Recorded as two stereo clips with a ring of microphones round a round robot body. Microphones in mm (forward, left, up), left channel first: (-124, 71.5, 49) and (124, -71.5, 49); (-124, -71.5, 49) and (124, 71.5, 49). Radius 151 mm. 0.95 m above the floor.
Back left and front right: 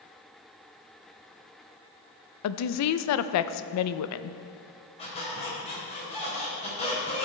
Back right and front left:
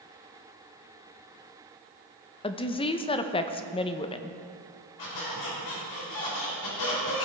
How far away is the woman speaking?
About 0.5 m.